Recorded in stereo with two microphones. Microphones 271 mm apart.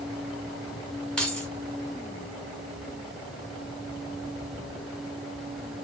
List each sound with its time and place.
1.2 s keys jangling: 5° left (ahead or behind), 0.9 m